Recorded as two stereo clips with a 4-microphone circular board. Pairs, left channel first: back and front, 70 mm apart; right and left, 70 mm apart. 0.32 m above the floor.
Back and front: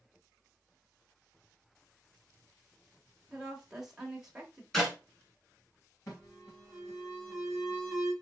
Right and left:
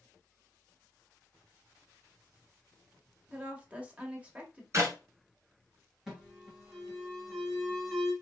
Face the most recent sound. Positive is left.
turn(degrees=170)